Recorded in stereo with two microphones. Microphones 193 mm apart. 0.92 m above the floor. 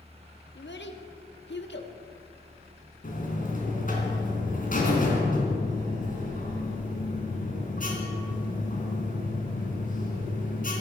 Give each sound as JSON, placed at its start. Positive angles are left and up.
{"t": 0.6, "sound": "a child speaking", "side_deg": 65, "distance_m": 1.4}
{"t": 3.0, "sound": "a buzzer", "side_deg": 45, "distance_m": 3.0}